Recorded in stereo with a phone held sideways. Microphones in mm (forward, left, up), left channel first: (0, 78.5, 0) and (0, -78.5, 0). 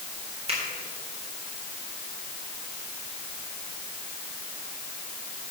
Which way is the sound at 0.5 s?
40° right (ahead or behind).